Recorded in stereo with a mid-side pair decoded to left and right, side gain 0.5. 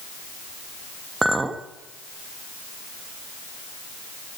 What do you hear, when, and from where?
1.2 s a clink: 15° right, 1.7 m